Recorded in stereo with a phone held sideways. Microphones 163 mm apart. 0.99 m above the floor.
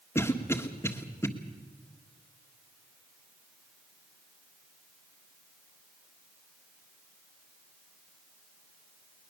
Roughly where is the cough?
Centre.